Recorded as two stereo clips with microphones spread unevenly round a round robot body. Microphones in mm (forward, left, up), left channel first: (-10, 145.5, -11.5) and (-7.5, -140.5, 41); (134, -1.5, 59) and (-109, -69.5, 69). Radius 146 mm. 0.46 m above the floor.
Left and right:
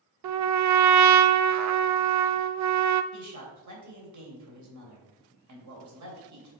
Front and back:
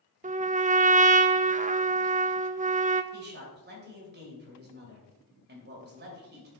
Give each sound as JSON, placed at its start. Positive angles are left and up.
{"t": 0.2, "sound": "a trumpet", "azimuth_deg": -110, "distance_m": 0.6}
{"t": 3.1, "sound": "a man speaking", "azimuth_deg": -120, "distance_m": 3.0}